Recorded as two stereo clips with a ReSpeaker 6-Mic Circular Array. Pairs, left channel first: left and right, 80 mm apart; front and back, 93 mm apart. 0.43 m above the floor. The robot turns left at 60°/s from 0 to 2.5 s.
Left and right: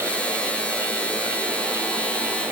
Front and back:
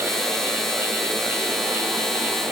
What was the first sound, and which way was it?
Only background noise.